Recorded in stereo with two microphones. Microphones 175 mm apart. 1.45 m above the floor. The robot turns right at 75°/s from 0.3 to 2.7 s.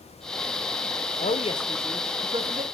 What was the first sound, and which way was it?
A woman speaking, 125° left.